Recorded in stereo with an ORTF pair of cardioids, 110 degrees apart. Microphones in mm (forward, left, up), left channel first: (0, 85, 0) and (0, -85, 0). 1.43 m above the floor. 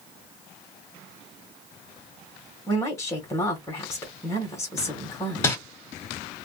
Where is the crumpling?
15° left, 2 m.